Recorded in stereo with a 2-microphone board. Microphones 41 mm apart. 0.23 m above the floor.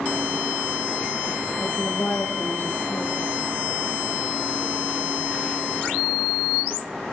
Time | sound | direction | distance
1.6 | a woman speaking | 55° left (ahead or behind) | 5 m